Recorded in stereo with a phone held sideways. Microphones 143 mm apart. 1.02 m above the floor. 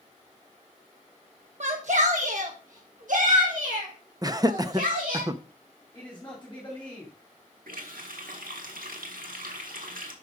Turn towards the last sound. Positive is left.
turn(degrees=-85)